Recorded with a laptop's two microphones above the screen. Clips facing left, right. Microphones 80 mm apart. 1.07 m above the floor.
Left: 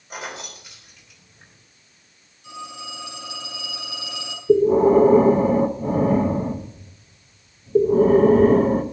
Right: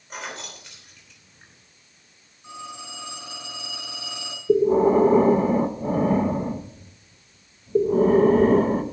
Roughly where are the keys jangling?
Centre.